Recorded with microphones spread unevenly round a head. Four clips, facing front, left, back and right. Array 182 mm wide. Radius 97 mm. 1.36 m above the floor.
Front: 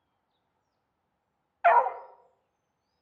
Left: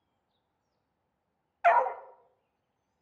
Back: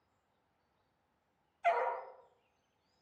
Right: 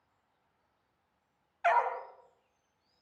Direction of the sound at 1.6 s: Straight ahead.